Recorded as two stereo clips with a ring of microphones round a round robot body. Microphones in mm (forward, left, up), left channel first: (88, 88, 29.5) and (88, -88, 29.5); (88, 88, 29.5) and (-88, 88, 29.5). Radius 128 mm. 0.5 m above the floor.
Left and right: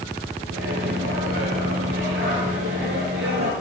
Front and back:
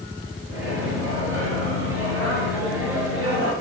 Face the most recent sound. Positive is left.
turn(degrees=-100)